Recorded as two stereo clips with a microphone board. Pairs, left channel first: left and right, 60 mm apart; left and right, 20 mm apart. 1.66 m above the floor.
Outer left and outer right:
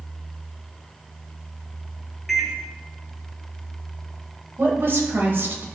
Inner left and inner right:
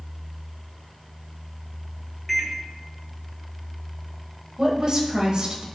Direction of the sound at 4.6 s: 45° right (ahead or behind).